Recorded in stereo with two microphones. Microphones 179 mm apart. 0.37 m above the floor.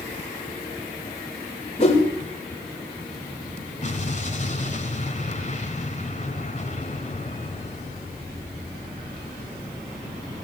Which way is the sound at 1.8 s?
35° left (ahead or behind).